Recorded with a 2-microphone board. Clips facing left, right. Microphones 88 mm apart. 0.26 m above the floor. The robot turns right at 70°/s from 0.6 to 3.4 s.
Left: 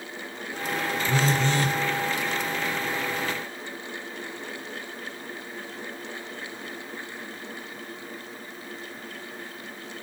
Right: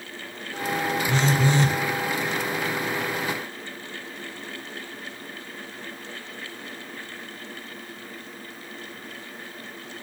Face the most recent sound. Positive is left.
turn(degrees=-35)